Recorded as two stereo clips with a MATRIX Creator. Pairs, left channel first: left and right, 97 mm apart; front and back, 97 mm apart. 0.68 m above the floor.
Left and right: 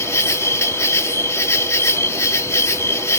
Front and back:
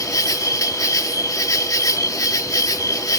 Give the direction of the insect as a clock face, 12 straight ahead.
11 o'clock.